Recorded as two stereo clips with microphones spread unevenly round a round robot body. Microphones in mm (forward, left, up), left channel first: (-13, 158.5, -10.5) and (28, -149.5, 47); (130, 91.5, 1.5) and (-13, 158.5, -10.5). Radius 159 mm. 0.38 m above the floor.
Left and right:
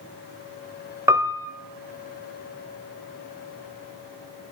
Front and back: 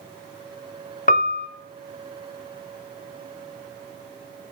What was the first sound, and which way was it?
A piano, 5° left.